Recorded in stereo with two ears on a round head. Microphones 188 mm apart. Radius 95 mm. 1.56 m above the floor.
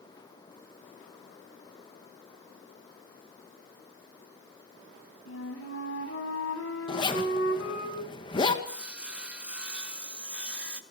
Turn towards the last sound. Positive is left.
turn(degrees=-5)  # may be behind; listen again after turning